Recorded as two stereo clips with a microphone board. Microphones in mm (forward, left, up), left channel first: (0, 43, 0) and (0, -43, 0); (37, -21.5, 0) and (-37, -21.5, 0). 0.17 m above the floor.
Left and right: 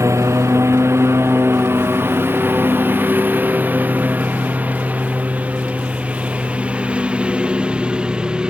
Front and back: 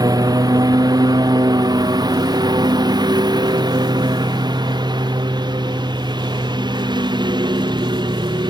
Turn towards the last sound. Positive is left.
turn(degrees=-170)